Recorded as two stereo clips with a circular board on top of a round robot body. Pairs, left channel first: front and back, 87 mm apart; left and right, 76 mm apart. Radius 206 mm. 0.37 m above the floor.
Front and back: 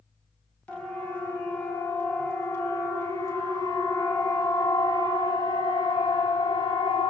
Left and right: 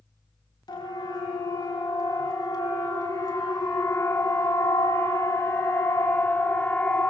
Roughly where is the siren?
Left.